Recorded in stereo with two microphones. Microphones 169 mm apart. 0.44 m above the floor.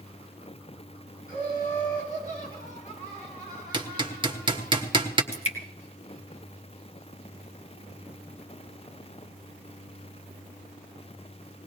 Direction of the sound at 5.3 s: 45° left (ahead or behind).